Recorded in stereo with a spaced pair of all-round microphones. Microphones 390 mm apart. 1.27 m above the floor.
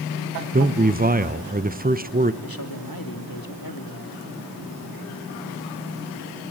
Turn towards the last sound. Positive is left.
turn(degrees=60)  # may be behind; listen again after turning